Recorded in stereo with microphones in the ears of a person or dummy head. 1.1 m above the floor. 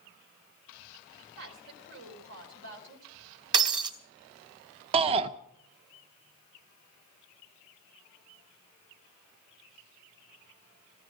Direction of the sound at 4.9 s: 30° right (ahead or behind).